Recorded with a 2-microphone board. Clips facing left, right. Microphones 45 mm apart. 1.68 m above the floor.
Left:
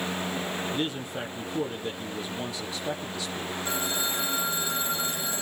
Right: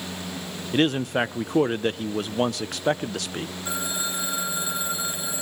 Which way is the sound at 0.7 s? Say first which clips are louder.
Right 9 dB; 70° right (ahead or behind).